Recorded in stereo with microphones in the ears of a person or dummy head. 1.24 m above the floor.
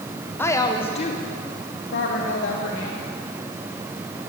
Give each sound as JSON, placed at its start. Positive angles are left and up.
{"t": 0.4, "sound": "a woman speaking", "side_deg": 10, "distance_m": 0.9}